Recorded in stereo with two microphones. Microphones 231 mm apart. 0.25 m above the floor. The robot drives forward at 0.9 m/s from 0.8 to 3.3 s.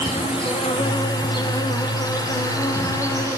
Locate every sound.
0.0 s an insect: 20° left (ahead or behind), 3 m; by 3.4 s 10° left (ahead or behind), 5 m